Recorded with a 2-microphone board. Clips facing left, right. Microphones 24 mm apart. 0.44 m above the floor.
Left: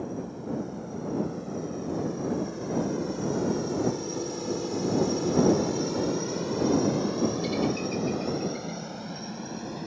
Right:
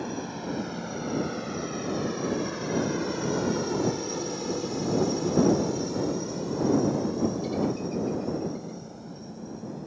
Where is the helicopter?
65° right (ahead or behind); by 9.9 s 55° left (ahead or behind).